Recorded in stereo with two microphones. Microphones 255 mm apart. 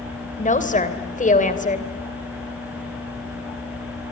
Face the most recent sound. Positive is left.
turn(degrees=30)  # may be behind; listen again after turning